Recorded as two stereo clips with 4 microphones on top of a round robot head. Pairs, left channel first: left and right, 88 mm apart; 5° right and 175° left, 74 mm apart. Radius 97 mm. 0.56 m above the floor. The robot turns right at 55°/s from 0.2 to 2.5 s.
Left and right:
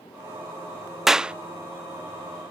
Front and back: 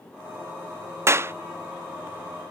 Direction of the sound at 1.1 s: 175° right.